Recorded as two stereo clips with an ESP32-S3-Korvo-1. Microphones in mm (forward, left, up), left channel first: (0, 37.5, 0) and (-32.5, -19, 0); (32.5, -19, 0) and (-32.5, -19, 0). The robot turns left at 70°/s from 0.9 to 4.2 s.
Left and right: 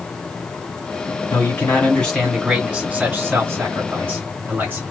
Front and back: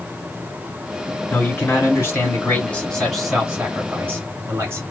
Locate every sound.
1.3 s a man speaking: 40° left, 1.4 m; by 4.8 s 160° right, 1.4 m